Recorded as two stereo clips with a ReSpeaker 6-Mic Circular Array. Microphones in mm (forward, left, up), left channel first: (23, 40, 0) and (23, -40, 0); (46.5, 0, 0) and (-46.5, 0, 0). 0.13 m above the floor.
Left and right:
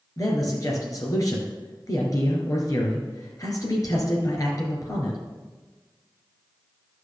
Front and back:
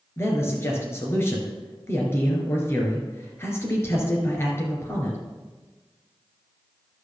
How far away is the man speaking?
About 2.5 m.